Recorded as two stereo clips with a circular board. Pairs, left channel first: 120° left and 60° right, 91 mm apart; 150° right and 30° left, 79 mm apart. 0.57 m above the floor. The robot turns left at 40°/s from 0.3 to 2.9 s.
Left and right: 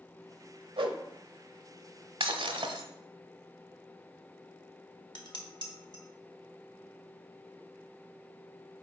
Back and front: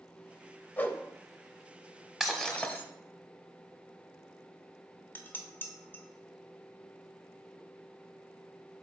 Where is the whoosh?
80° right, 0.7 m; by 1.0 s 90° right, 0.7 m.